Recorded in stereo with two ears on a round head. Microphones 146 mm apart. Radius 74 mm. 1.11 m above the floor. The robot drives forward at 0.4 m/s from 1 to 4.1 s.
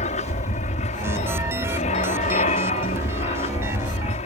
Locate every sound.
0.0 s an aircraft: 45° left (ahead or behind)